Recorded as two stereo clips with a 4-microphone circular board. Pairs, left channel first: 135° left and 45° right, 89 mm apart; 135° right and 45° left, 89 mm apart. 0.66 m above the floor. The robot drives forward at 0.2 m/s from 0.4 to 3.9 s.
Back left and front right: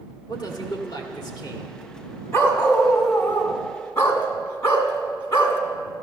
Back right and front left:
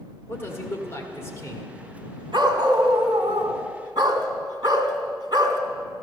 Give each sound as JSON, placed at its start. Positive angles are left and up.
{"t": 0.3, "sound": "a man speaking", "azimuth_deg": 165, "distance_m": 1.8}
{"t": 2.3, "sound": "a dog barking", "azimuth_deg": 80, "distance_m": 2.0}